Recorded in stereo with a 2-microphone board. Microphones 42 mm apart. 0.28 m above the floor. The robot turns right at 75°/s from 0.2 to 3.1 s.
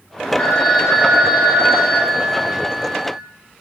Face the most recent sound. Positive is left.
turn(degrees=0)